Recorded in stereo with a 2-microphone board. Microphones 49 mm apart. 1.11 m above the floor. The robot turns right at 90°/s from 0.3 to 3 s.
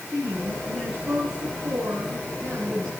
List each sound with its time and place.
0.1 s a woman speaking: 135° left, 8 m; by 2.9 s 10° left, 8 m